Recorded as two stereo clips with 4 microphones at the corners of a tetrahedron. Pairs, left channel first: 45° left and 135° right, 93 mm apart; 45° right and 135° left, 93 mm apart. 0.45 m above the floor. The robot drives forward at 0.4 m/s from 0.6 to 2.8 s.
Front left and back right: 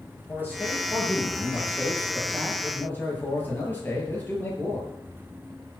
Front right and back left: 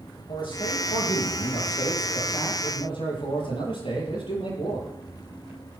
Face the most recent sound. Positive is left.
turn(degrees=-25)